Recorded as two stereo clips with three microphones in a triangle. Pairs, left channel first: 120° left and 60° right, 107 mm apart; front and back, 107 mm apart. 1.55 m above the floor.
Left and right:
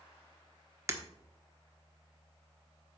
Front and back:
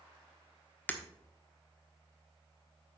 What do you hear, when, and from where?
0.9 s breaking glass: 55° right, 1.2 m